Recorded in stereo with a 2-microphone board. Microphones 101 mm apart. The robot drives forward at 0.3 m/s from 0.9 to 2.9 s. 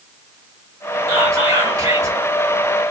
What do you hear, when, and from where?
1.1 s whispering: 40° right (ahead or behind), 2.5 m